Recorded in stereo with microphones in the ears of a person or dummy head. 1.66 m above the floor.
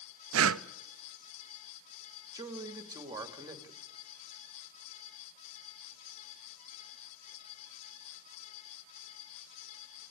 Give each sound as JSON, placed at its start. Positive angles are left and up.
{"t": 0.3, "sound": "breathing", "side_deg": -80, "distance_m": 0.7}
{"t": 2.3, "sound": "a man speaking", "side_deg": -15, "distance_m": 2.5}